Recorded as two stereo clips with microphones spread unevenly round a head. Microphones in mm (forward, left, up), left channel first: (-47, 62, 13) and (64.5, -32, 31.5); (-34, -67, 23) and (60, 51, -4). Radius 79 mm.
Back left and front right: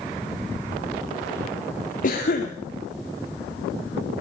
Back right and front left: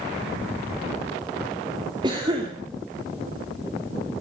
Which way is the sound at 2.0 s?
115° left.